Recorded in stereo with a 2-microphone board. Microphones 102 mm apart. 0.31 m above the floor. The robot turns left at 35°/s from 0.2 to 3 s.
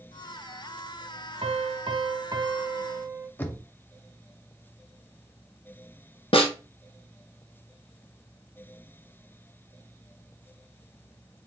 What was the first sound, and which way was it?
A piano, 100° right.